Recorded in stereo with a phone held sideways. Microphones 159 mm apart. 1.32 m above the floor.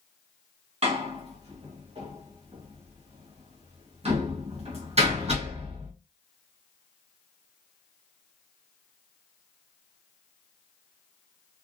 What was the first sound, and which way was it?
A door slam, 40° right (ahead or behind).